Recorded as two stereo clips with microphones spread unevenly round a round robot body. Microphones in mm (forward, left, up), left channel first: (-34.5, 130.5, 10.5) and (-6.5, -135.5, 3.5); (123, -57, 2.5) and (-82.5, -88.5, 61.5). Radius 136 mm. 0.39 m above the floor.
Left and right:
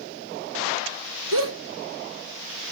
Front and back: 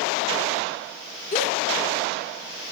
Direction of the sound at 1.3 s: 40° right.